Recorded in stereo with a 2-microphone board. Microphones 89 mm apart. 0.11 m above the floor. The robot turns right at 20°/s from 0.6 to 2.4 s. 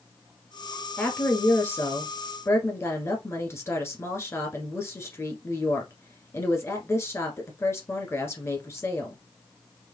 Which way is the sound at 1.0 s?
20° left (ahead or behind).